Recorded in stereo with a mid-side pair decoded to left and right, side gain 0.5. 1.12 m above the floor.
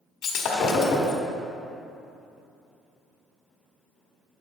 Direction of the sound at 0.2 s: 60° left.